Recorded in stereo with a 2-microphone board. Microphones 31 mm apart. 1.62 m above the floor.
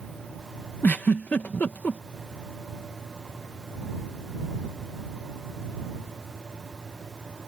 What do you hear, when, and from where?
0.8 s a giggle: 65° left (ahead or behind)